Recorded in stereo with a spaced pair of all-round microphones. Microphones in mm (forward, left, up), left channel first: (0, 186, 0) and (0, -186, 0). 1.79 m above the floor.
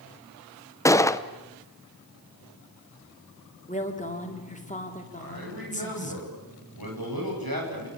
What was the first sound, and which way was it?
A gunshot, 10° left (ahead or behind).